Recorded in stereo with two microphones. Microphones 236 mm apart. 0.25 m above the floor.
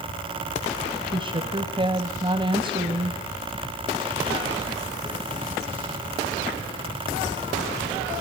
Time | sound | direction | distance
1.0 | a woman speaking | 20° right (ahead or behind) | 1.4 m